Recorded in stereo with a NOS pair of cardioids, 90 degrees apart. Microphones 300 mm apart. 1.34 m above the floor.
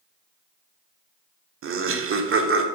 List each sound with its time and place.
1.6 s laughter: 45° right, 1.2 m